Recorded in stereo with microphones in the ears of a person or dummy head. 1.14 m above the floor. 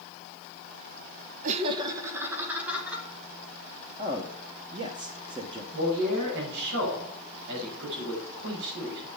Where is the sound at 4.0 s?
20° right (ahead or behind), 0.8 m.